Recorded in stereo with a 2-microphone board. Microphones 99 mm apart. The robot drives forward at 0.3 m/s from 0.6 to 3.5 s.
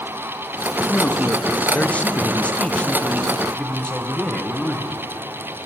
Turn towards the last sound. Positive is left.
turn(degrees=10)  # may be behind; listen again after turning